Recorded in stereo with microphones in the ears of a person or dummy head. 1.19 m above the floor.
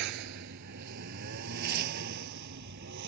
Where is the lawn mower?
60° right (ahead or behind).